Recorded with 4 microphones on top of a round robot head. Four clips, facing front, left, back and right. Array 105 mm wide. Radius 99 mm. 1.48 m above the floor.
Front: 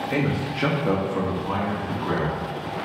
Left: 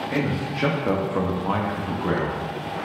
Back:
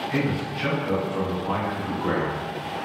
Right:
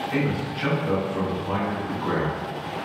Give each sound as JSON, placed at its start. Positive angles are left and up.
{"t": 0.1, "sound": "a man speaking", "azimuth_deg": 30, "distance_m": 0.8}